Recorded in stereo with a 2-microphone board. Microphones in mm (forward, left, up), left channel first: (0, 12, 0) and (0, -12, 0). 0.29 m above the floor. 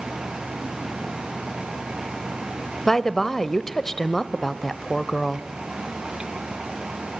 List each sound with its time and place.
2.9 s a woman speaking: 20° left (ahead or behind), 1.0 m